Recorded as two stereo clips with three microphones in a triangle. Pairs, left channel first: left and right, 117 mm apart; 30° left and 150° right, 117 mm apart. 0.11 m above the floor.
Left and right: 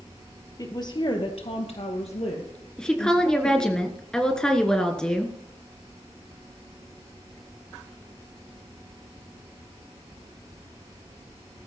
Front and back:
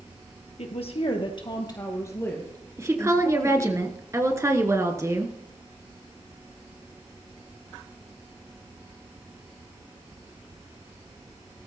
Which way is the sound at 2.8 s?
170° left.